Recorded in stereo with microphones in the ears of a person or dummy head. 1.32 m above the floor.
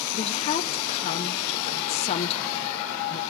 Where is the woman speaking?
35° left (ahead or behind), 0.8 m.